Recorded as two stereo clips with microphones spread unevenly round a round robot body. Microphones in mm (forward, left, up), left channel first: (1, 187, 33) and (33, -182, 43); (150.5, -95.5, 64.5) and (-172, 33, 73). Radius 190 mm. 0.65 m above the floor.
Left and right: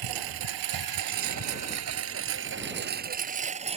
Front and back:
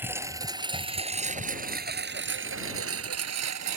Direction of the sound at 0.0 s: 120° right.